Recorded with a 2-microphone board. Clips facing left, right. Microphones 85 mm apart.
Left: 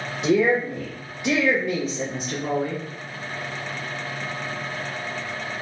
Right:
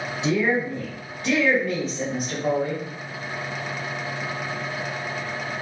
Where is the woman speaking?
45° left (ahead or behind), 1.2 m; by 2.8 s 15° right (ahead or behind), 1.4 m.